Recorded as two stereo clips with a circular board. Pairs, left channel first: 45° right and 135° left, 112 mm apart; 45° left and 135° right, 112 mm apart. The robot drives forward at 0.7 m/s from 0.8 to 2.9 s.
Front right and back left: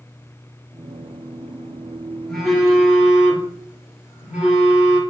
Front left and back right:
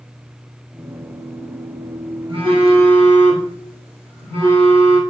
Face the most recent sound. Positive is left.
turn(degrees=-145)